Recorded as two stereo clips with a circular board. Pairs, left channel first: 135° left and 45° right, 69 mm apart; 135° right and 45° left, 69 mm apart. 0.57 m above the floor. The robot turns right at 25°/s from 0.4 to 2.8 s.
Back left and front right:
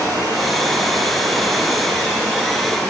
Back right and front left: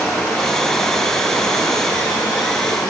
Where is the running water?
145° left, 7 m; by 2.9 s 155° right, 7 m.